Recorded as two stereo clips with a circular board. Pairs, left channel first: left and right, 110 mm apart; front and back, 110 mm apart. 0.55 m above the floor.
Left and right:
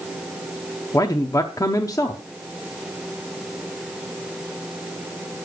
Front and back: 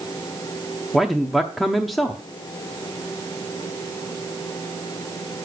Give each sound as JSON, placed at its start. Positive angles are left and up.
{"t": 0.9, "sound": "a man speaking", "azimuth_deg": 90, "distance_m": 0.7}